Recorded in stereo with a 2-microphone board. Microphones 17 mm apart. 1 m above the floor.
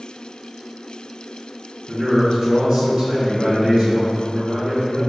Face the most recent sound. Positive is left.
turn(degrees=-45)  # may be behind; listen again after turning